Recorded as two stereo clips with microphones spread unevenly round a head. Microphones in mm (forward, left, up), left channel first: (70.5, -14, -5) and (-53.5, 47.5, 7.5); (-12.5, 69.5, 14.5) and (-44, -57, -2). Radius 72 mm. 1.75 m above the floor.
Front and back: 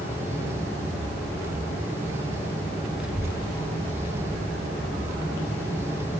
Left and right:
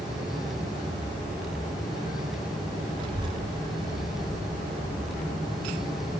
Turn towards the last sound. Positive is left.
turn(degrees=175)